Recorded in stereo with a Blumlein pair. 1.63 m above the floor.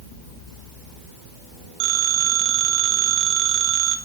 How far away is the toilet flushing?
I don't hear a toilet flushing.